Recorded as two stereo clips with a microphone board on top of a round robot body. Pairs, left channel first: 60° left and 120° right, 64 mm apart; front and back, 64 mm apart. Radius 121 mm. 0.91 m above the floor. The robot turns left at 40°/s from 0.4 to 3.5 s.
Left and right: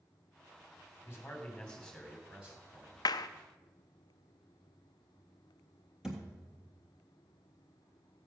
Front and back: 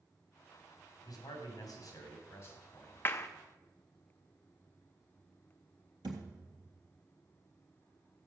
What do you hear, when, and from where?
1.0 s a man speaking: 5° left, 3 m; by 3.0 s 70° right, 3 m
3.0 s a clap: 60° left, 0.5 m; by 3.3 s 50° left, 0.5 m
6.0 s a thud: 160° left, 1.4 m